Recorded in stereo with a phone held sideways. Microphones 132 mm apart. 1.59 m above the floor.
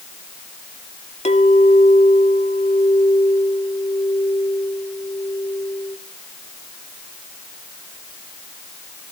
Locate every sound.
1.2 s a clink: 55° left (ahead or behind), 2 m